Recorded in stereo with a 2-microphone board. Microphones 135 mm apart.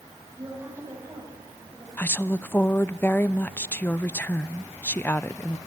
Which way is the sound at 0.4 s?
25° right (ahead or behind).